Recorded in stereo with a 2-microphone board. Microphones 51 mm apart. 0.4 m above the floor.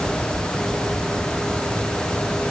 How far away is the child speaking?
I don't hear a child speaking.